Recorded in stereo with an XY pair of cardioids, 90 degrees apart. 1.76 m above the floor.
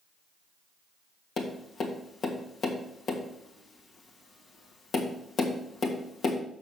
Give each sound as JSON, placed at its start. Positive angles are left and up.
{"t": 1.4, "sound": "tapping", "azimuth_deg": 60, "distance_m": 1.8}